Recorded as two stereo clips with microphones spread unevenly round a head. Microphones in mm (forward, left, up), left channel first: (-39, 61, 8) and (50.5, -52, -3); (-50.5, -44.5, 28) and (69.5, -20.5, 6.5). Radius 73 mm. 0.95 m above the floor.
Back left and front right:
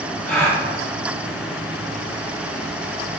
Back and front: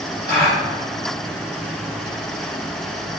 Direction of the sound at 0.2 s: 175° left.